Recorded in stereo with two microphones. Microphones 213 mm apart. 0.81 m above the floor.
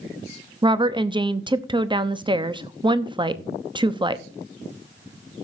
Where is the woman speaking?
25° right (ahead or behind), 0.8 m.